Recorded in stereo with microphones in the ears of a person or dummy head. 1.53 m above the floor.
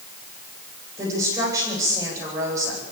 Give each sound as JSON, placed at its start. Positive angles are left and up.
{"t": 1.0, "sound": "a woman speaking", "side_deg": -20, "distance_m": 8.5}